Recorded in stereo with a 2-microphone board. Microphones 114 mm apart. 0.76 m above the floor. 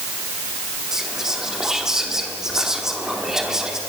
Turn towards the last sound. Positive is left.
turn(degrees=-5)  # may be behind; listen again after turning